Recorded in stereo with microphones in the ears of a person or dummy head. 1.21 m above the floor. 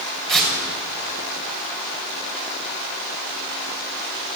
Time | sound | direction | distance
0.3 | tearing paper | centre (ahead or behind) | 7 m